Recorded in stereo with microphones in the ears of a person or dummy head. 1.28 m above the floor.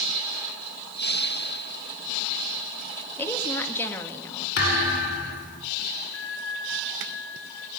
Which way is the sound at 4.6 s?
60° left (ahead or behind).